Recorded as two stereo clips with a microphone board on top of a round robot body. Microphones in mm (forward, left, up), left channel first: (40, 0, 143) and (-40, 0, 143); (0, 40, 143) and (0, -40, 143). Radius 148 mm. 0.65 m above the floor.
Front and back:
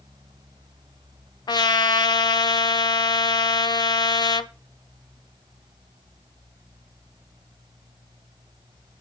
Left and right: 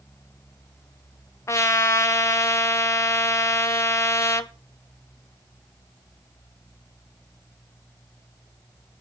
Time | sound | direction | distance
1.5 | a trumpet | 35° left | 1.0 m